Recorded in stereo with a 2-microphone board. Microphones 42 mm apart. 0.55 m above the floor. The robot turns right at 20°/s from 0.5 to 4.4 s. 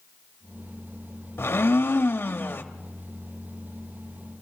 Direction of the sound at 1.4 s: 85° left.